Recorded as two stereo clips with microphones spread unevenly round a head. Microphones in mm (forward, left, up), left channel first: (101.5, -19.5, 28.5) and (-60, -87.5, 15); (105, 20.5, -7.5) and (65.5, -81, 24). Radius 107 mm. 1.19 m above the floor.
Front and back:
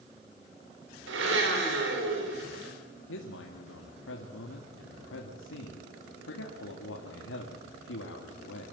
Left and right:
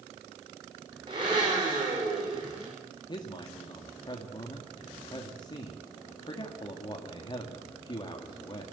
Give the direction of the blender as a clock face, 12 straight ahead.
6 o'clock.